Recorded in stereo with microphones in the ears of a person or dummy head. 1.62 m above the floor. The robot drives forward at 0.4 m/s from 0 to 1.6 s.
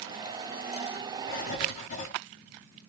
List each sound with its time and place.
1.3 s writing: 55° left (ahead or behind), 0.8 m; by 2.1 s 50° left (ahead or behind), 0.9 m